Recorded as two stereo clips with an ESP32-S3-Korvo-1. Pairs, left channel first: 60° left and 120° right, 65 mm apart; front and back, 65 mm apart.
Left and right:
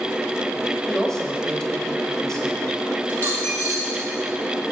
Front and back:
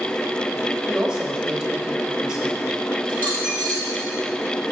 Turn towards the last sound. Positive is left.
turn(degrees=120)